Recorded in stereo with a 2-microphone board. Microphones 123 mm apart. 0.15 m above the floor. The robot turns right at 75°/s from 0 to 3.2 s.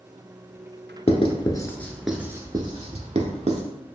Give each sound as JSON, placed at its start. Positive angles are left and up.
{"t": 1.1, "sound": "writing", "side_deg": 55, "distance_m": 0.6}